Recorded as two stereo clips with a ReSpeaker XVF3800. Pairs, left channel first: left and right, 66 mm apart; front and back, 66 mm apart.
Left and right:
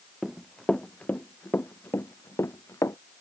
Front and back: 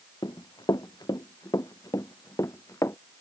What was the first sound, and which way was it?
Running footsteps, straight ahead.